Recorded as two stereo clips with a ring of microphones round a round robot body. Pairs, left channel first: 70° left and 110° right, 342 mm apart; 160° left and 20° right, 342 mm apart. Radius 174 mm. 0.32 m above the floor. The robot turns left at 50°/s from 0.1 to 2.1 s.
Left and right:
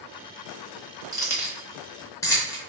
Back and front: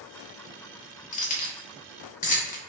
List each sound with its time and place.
1.1 s keys jangling: 175° right, 0.6 m; by 2.6 s 135° left, 0.6 m